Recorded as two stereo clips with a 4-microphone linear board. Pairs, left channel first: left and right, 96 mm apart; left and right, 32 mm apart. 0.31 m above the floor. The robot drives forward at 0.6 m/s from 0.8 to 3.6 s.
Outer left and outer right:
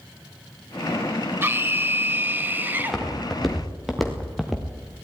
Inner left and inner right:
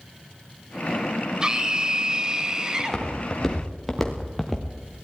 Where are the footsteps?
Centre (ahead or behind), 5 m; by 4.7 s 5° right (ahead or behind), 3.5 m.